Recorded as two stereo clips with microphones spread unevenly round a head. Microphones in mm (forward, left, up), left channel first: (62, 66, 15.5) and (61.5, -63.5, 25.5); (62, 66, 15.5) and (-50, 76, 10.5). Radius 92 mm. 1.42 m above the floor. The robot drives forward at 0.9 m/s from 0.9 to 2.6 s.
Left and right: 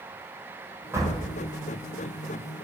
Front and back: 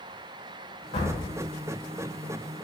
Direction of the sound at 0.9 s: 25° right.